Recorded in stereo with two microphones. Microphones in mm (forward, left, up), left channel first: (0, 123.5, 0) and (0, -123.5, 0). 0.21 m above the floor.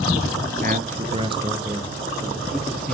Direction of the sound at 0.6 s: 35° right (ahead or behind).